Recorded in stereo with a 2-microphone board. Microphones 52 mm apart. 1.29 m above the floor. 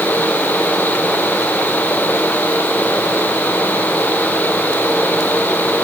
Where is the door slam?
I don't hear a door slam.